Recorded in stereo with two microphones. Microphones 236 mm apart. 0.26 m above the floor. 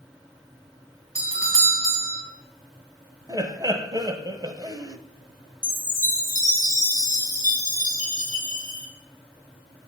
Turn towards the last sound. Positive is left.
turn(degrees=-35)  # may be behind; listen again after turning